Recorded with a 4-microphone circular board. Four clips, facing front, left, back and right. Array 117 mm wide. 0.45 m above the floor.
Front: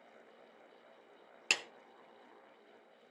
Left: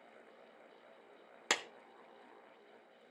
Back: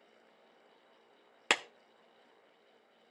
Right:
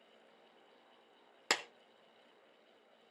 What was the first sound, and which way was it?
A clap, 170° right.